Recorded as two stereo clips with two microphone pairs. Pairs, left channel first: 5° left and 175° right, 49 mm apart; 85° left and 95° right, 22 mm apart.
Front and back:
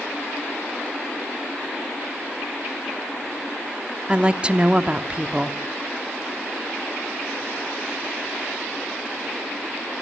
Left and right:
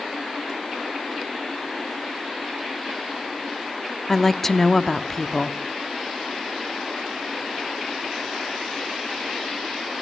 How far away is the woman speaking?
About 0.8 m.